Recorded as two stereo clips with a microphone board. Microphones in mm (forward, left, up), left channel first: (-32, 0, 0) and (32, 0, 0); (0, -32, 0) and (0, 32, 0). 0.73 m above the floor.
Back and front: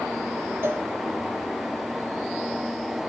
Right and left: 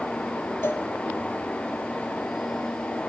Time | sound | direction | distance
0.6 | a cowbell | 45° right | 1.7 m